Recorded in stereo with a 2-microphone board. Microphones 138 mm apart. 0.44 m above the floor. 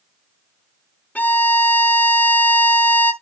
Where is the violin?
10° left (ahead or behind), 0.8 m.